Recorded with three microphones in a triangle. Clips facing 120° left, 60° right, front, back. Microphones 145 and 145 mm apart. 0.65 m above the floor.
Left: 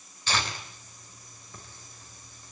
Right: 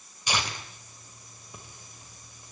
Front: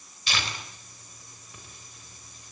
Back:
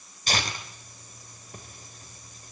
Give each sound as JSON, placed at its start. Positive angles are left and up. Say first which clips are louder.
{"t": 0.3, "sound": "tearing paper", "louder": "even, back 3 dB", "azimuth_deg": -135, "distance_m": 3.5}